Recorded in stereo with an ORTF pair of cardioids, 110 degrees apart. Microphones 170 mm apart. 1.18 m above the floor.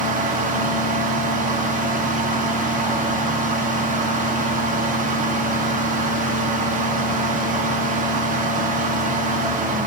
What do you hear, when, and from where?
0.0 s a fan: 55° right, 1.0 m